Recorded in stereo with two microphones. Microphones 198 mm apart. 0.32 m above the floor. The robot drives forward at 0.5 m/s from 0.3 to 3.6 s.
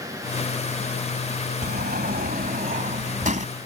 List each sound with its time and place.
1.6 s a sliding door: 55° right (ahead or behind); by 3.5 s 40° right (ahead or behind)